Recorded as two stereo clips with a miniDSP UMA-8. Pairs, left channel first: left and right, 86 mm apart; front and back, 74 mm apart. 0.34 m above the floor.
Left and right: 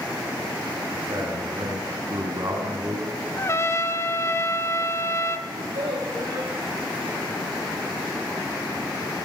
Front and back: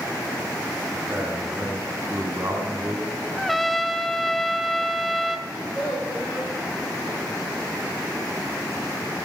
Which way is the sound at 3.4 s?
90° left.